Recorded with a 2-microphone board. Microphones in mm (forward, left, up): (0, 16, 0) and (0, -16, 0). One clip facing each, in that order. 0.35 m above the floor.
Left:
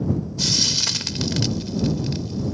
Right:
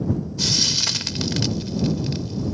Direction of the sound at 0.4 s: 5° right (ahead or behind).